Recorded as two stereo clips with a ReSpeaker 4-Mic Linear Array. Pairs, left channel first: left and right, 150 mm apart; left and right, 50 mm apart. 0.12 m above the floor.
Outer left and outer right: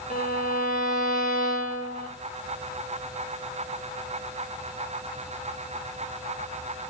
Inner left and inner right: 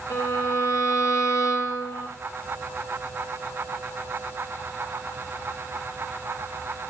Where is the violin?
65° left (ahead or behind), 9.5 m.